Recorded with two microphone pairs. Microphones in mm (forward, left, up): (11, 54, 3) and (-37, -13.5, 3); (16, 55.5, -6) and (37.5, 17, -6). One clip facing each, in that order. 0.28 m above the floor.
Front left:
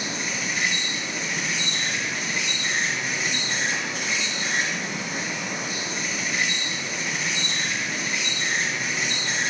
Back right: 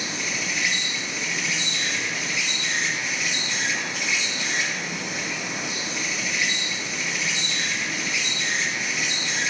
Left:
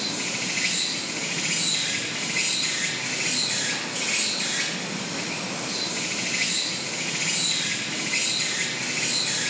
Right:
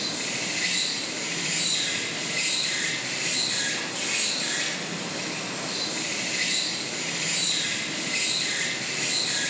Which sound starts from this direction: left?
An insect, at 0.0 s.